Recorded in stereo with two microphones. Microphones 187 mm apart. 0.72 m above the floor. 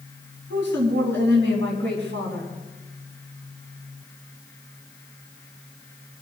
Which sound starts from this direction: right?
A woman speaking, at 0.5 s.